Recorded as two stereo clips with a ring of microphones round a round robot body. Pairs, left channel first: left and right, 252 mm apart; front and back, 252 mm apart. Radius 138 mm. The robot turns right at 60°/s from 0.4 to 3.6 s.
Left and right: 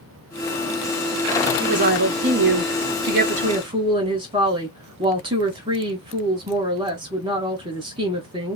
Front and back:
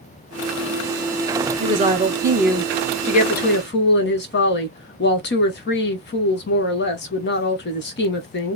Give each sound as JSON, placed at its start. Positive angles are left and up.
{"t": 1.6, "sound": "a woman speaking", "azimuth_deg": -145, "distance_m": 1.1}